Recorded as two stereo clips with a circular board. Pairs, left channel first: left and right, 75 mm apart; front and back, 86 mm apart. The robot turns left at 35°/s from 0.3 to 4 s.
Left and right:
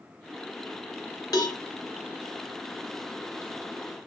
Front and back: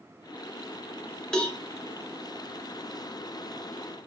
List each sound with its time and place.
1.3 s a cowbell: 80° left, 0.6 m; by 1.6 s 70° left, 0.6 m